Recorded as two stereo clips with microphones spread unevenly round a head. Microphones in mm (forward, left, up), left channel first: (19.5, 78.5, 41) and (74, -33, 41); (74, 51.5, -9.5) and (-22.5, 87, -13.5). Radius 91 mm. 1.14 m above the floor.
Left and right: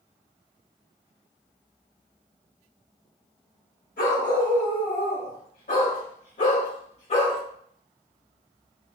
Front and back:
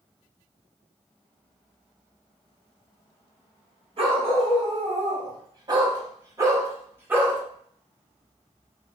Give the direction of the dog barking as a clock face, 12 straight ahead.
8 o'clock.